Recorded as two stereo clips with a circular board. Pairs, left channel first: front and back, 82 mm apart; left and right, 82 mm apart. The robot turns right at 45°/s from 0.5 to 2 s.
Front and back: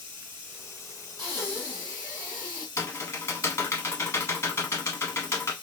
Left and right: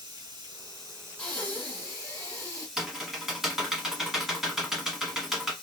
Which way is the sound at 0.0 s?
65° right.